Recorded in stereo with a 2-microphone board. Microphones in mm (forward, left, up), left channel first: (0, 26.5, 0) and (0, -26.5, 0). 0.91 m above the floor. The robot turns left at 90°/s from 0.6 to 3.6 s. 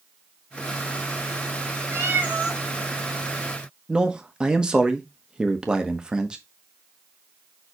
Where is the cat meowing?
115° right, 1.8 m; by 2.6 s 175° right, 1.8 m.